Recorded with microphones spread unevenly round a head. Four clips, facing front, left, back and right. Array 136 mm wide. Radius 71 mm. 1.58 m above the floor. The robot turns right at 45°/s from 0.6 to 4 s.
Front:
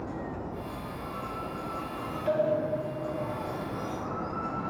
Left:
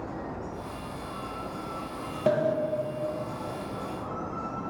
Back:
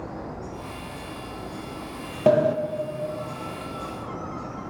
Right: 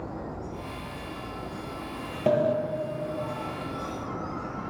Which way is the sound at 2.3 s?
175° right.